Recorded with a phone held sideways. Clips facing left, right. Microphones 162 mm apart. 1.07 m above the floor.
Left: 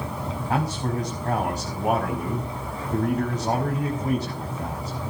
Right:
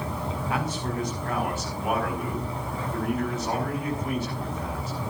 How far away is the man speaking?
About 6 m.